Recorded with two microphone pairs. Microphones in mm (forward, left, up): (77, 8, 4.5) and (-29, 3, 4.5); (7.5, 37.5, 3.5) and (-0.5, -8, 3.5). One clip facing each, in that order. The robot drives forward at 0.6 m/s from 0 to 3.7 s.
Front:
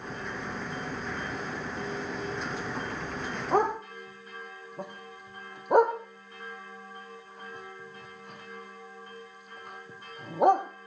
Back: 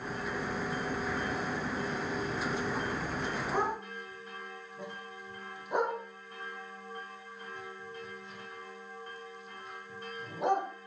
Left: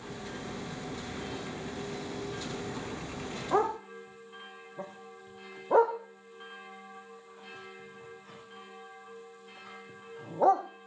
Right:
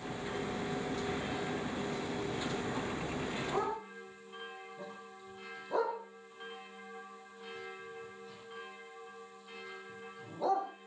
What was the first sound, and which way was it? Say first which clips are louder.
A dog barking: front 10 dB, left 12 dB; 35° left.